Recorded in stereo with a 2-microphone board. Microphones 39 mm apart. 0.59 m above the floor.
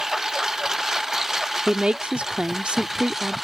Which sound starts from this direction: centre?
A lawn mower, at 0.0 s.